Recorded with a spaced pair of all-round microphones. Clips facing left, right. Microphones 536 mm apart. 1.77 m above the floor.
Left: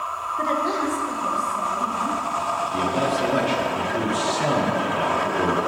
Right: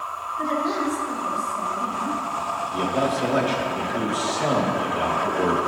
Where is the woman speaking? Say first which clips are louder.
Even; 80° left, 0.9 m; by 2.2 s 60° left (ahead or behind), 3 m.